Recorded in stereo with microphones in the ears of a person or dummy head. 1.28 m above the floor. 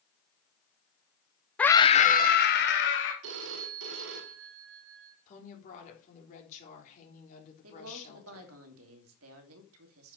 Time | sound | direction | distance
1.6 | a scream | 5° left (ahead or behind) | 0.6 m
3.2 | a phone ringing | 70° right (ahead or behind) | 1.7 m
5.3 | a woman speaking | 40° left (ahead or behind) | 3.5 m
7.6 | a woman speaking | 80° right | 2.5 m